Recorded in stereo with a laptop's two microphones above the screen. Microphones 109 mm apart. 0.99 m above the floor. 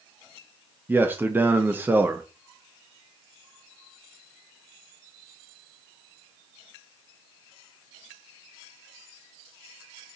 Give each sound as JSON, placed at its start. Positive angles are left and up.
{"t": 0.9, "sound": "a man speaking", "side_deg": -20, "distance_m": 0.5}